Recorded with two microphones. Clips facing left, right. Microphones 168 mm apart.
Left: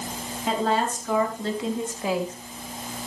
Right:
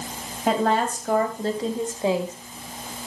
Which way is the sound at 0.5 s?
60° right (ahead or behind).